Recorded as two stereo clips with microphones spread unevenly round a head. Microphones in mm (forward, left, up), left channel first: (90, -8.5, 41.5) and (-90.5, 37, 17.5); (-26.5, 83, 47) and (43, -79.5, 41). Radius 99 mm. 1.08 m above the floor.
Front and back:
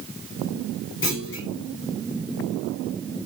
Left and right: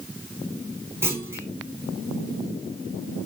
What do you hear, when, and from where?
1.0 s a clunk: 10° left, 1.4 m